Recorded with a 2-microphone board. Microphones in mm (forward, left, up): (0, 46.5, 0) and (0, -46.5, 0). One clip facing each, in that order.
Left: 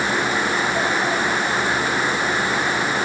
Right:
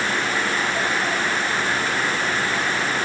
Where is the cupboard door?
No cupboard door in this recording.